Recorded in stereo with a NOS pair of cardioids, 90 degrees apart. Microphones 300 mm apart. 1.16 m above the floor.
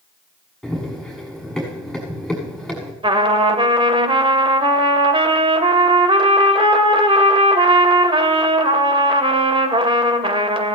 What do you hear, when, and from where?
0.6 s running footsteps: straight ahead, 6.5 m
3.0 s a trumpet: 20° right, 2.5 m